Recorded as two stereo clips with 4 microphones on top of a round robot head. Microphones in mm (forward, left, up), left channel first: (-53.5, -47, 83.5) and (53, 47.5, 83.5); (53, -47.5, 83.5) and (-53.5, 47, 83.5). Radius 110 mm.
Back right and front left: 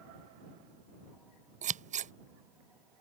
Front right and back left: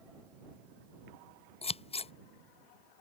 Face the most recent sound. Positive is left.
turn(degrees=5)